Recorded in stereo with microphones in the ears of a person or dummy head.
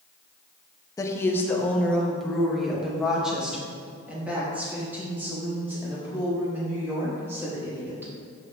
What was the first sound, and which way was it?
A woman speaking, 20° left (ahead or behind).